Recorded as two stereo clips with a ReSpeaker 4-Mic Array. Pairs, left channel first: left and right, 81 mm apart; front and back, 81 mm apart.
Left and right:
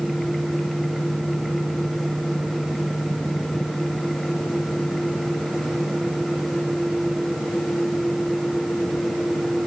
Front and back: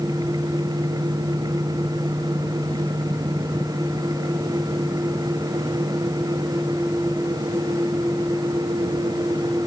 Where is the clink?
No clink in this recording.